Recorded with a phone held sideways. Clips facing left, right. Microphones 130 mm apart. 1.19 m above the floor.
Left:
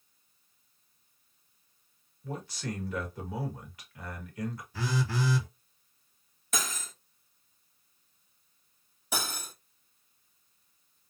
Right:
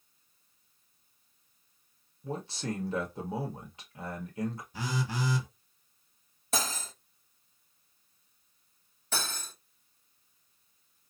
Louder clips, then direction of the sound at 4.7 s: Left 5 dB; 20° right (ahead or behind).